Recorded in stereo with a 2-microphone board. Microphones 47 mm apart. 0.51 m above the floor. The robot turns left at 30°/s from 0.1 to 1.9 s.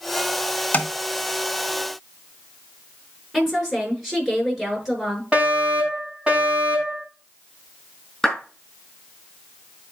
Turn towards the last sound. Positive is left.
turn(degrees=5)  # may be behind; listen again after turning